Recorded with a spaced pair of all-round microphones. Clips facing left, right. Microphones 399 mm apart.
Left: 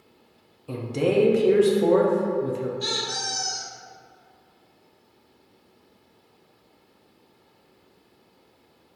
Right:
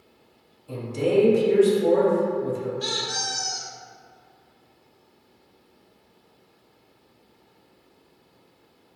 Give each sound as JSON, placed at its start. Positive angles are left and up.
{"t": 0.7, "sound": "a man speaking", "side_deg": 75, "distance_m": 0.5}
{"t": 2.8, "sound": "a squeak", "side_deg": -25, "distance_m": 0.9}